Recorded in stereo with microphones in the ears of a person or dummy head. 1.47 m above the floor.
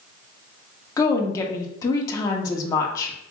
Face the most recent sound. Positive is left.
turn(degrees=20)  # may be behind; listen again after turning